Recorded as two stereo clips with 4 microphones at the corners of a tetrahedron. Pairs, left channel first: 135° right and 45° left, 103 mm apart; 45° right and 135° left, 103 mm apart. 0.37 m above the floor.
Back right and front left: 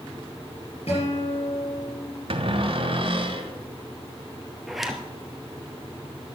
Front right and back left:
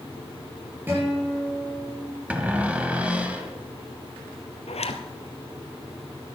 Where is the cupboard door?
60° left, 1.5 m.